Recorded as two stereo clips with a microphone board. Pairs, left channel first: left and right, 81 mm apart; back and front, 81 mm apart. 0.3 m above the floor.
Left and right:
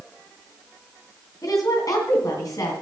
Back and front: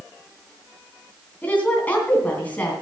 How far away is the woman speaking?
About 3 m.